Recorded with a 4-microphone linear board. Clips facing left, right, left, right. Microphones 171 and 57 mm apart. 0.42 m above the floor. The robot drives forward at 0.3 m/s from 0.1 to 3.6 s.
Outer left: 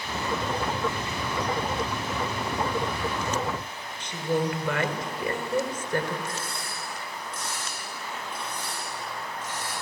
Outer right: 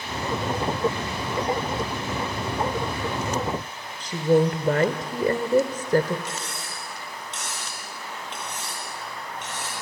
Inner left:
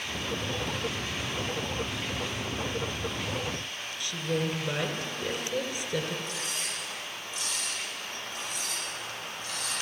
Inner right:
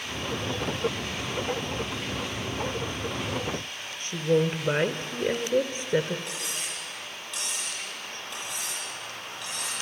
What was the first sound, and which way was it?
A woman speaking, 35° right (ahead or behind).